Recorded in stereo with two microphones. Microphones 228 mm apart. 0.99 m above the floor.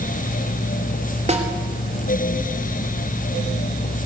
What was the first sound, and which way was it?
A snare drum, 30° right (ahead or behind).